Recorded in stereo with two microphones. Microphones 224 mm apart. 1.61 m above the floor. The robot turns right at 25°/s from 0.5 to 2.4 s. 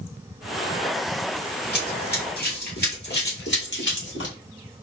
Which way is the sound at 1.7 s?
50° left (ahead or behind).